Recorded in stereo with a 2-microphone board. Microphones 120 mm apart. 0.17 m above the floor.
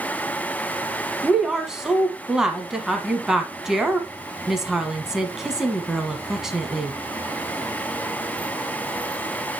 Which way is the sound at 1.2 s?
5° right (ahead or behind).